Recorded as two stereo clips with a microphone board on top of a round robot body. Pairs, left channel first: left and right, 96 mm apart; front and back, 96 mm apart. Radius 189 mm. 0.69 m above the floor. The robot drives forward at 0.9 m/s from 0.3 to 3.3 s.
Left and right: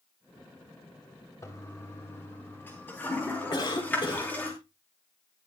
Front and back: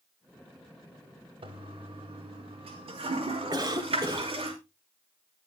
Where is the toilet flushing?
150° left, 2 m; by 4.5 s 165° left, 3.5 m.